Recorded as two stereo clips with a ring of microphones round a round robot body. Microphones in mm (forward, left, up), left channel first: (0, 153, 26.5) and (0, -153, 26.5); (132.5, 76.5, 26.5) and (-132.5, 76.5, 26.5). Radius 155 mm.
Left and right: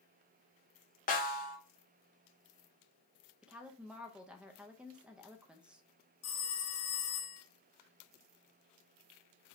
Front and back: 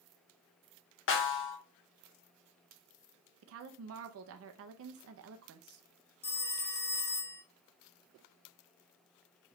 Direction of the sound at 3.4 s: 175° right.